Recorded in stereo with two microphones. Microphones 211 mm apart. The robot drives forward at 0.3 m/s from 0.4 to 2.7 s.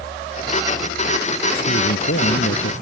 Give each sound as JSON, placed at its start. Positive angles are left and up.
{"t": 1.7, "sound": "a man speaking", "side_deg": 70}